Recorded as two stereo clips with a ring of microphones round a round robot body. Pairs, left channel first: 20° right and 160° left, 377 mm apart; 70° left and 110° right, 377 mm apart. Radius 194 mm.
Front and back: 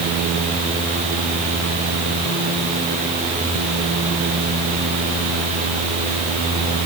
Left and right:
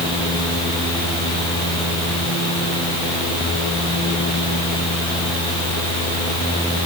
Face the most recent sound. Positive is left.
No sound to turn to.